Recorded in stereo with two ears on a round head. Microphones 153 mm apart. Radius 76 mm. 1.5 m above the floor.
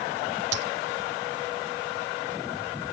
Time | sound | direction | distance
0.5 | a dropped coin | 75° right (ahead or behind) | ?